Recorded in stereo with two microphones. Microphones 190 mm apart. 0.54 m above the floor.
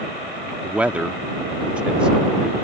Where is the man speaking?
5° right (ahead or behind).